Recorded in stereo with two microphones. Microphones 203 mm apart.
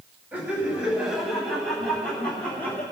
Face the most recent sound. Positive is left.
turn(degrees=10)  # may be behind; listen again after turning